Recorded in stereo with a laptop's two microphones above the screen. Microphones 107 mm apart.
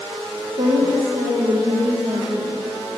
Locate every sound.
0.6 s a woman speaking: 55° right (ahead or behind), 0.8 m